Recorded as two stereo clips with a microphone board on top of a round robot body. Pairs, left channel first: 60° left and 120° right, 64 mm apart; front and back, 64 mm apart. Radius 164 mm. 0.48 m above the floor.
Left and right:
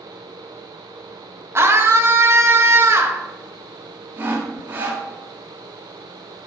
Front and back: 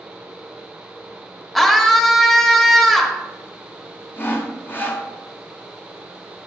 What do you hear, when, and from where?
1.6 s a scream: 85° right, 1.7 m
4.2 s sawing: 60° right, 1.5 m